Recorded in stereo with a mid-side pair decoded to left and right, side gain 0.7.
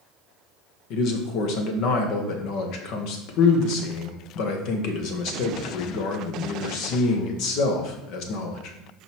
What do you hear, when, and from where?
0.9 s a man speaking: 60° left, 1.3 m